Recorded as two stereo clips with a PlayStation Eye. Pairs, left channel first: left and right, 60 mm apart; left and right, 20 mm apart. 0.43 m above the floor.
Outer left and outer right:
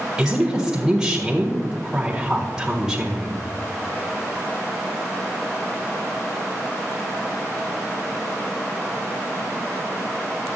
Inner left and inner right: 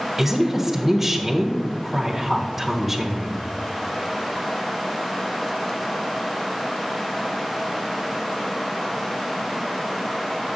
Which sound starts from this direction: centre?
A woman speaking, at 0.2 s.